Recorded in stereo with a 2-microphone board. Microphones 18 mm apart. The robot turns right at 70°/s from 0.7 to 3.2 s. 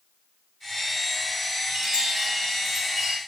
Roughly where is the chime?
Ahead right.